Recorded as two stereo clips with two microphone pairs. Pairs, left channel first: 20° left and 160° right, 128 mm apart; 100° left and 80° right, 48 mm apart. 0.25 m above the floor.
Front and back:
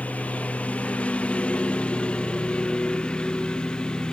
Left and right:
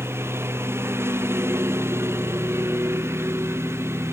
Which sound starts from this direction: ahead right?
A lawn mower, at 0.0 s.